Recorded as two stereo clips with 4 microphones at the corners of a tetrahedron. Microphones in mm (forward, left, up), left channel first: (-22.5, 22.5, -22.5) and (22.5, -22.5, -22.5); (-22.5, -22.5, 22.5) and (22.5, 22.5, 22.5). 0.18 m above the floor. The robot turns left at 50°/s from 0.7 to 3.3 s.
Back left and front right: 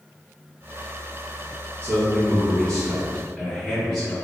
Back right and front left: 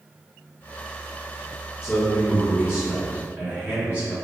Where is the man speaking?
120° left, 1.7 m; by 4.1 s 45° left, 1.7 m.